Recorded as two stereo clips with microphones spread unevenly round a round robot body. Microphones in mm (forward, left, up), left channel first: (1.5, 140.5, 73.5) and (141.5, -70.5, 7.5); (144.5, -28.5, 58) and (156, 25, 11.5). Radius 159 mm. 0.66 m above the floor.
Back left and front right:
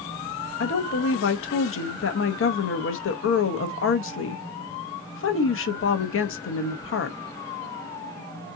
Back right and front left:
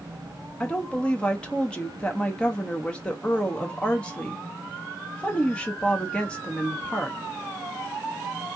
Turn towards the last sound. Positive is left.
turn(degrees=120)